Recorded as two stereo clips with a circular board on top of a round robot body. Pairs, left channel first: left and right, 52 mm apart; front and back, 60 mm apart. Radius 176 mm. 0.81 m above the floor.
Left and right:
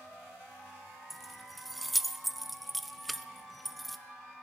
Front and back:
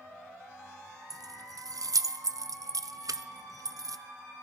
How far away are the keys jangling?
About 0.5 m.